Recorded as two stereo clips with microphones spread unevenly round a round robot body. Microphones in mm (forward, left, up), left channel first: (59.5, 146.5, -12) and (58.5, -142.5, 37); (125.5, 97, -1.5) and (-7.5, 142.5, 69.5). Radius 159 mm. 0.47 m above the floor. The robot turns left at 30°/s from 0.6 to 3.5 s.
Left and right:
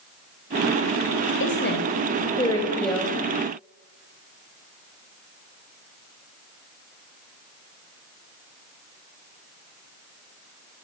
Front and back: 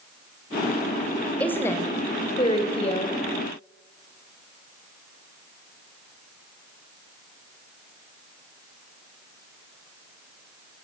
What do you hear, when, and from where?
1.4 s a woman speaking: 50° left, 3 m; by 3.2 s 5° right, 3 m